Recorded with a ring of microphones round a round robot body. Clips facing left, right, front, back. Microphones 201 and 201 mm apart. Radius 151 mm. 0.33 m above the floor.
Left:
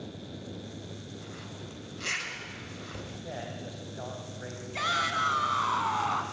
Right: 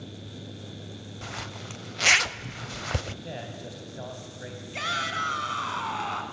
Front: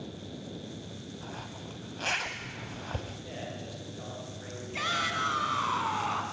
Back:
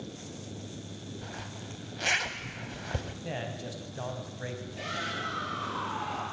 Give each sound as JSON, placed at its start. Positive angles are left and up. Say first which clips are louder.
{"t": 1.2, "sound": "a zipper", "louder": "right 2 dB, even", "azimuth_deg": -100, "distance_m": 0.6}
{"t": 3.2, "sound": "a man speaking", "louder": "right 1 dB, back 3 dB", "azimuth_deg": -155, "distance_m": 3.0}
{"t": 4.7, "sound": "a shout", "louder": "left 2 dB, front 1 dB", "azimuth_deg": -30, "distance_m": 3.0}